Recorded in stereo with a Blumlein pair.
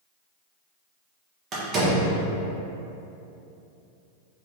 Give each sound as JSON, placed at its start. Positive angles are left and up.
{"t": 1.5, "sound": "a door slam", "azimuth_deg": -30, "distance_m": 1.0}